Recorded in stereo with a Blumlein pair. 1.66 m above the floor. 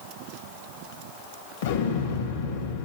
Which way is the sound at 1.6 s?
55° left.